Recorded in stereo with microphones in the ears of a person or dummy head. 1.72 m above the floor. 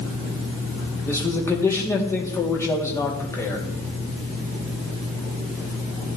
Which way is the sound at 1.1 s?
15° left (ahead or behind).